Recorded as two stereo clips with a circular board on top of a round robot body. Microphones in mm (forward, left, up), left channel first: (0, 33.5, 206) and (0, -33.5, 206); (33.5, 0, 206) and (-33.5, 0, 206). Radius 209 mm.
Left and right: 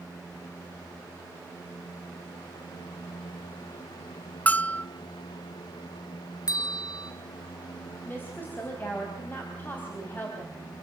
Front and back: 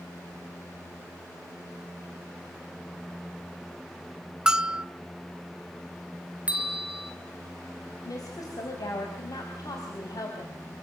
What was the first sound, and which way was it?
A bell, 120° left.